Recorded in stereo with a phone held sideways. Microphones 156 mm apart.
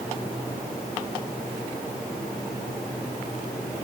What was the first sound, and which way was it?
Only background noise.